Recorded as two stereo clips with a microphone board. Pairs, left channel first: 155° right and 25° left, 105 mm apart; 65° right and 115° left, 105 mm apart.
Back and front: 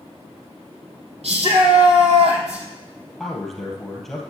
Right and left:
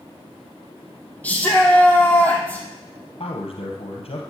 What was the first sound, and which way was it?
A shout, 10° left.